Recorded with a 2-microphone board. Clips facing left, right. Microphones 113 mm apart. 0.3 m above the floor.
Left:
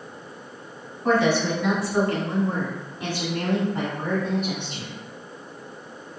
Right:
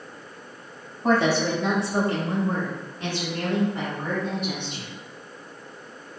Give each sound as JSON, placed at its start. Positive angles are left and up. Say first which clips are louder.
{"t": 1.0, "sound": "a woman speaking", "louder": "even", "side_deg": -40, "distance_m": 1.6}